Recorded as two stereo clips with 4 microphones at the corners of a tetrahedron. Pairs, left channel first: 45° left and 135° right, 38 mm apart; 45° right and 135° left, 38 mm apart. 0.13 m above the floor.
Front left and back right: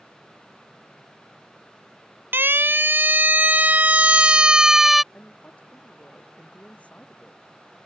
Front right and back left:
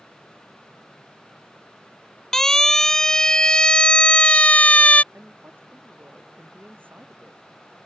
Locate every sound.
2.3 s a siren: 125° right; by 5.0 s 45° right
5.1 s a woman speaking: 100° left